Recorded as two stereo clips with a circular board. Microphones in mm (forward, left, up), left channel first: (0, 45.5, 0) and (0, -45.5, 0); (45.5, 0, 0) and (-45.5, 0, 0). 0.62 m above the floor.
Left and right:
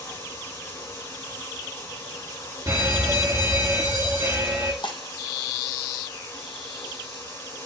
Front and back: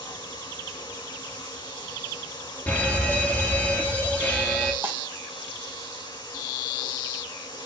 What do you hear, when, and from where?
0.0 s running water: 30° left, 4 m
2.7 s a fire alarm: 60° right, 1.8 m
4.8 s breaking glass: 115° left, 1.4 m